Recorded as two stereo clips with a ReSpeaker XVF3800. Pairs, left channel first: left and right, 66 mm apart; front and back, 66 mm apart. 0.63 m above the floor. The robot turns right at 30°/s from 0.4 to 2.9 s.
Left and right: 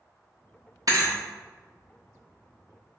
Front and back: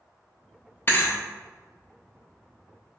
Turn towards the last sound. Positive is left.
turn(degrees=5)